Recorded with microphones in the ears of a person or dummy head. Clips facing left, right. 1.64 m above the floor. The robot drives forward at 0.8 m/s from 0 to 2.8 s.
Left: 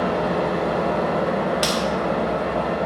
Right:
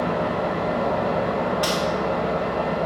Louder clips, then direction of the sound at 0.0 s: Left 2 dB; 55° left (ahead or behind).